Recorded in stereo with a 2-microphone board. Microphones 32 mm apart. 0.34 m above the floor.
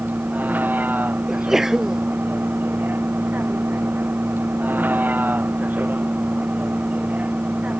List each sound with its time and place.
0.0 s a vehicle: 65° right (ahead or behind); by 7.8 s 50° right (ahead or behind)
1.3 s a sneeze: 15° right (ahead or behind)